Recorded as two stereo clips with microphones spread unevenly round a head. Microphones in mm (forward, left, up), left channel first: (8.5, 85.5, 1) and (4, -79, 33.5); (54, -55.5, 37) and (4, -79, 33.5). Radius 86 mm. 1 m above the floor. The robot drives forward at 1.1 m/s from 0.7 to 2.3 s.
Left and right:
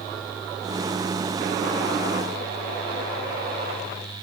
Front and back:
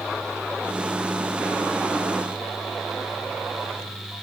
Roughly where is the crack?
I don't hear a crack.